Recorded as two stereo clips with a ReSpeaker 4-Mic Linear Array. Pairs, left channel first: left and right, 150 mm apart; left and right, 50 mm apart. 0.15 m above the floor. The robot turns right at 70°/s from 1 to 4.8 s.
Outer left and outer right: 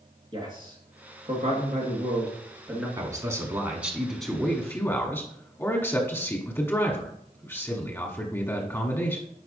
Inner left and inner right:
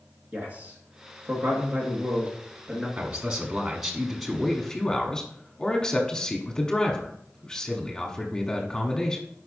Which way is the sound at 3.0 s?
20° right (ahead or behind).